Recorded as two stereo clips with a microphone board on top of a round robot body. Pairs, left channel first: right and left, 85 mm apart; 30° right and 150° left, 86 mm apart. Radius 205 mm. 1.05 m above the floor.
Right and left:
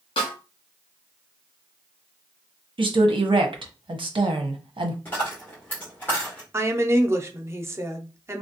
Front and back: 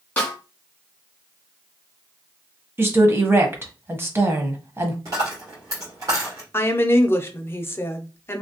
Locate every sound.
0.2 s a snare drum: 100° right, 1.3 m
2.8 s a woman speaking: 90° left, 1.1 m
5.0 s a dropped coin: 155° right, 1.7 m
6.5 s a woman speaking: 35° left, 0.8 m